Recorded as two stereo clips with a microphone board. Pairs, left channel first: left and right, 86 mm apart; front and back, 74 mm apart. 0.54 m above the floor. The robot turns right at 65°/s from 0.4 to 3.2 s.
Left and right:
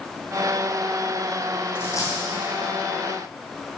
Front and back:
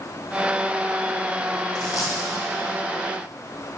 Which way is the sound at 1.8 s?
25° left.